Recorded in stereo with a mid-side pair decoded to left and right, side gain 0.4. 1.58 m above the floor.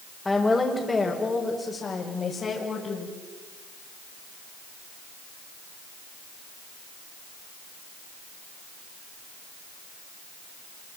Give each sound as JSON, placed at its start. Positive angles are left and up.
{"t": 0.2, "sound": "a woman speaking", "azimuth_deg": 20, "distance_m": 5.0}